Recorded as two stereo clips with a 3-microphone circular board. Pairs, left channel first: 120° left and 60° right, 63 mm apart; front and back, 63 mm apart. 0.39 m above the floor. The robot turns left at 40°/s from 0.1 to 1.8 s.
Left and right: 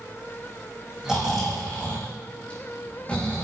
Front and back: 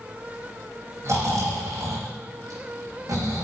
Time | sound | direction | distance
1.0 | snoring | 140° right | 9 m